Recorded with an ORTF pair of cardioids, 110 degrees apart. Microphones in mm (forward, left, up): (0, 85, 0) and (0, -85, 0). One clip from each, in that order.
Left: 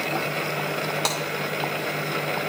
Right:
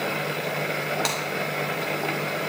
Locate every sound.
1.1 s breaking glass: straight ahead, 2.5 m